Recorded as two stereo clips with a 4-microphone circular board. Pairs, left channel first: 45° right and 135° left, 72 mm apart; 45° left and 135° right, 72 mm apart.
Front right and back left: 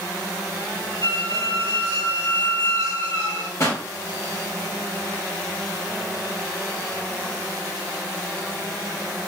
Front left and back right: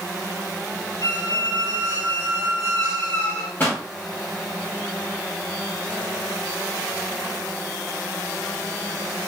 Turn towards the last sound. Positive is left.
turn(degrees=-10)